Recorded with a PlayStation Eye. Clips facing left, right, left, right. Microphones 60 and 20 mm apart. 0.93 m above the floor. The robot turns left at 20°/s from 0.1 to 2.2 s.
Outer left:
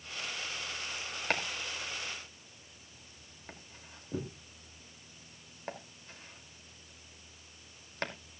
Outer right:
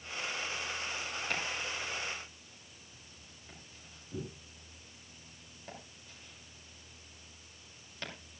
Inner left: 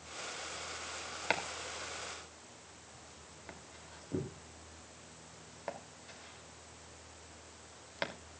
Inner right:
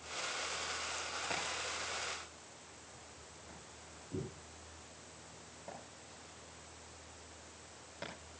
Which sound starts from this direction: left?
Chopping, at 1.3 s.